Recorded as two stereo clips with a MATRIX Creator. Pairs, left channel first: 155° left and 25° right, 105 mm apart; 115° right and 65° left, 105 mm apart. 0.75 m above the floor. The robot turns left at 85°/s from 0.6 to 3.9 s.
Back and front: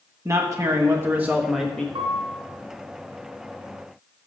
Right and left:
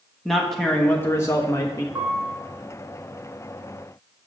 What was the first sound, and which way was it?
A man speaking, 25° right.